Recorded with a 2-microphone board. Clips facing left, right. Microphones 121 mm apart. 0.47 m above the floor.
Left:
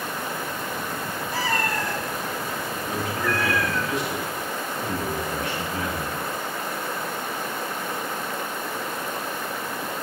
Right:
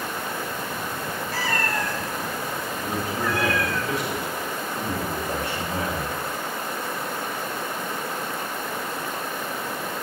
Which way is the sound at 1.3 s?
20° left (ahead or behind).